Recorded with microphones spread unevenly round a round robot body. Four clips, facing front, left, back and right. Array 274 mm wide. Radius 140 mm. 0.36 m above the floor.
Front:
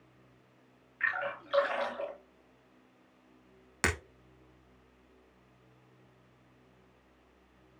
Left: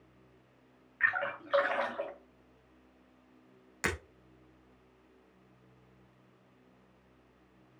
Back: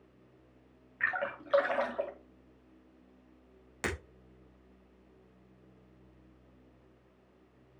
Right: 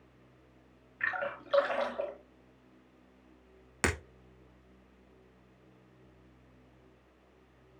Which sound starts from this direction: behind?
A splash, at 1.0 s.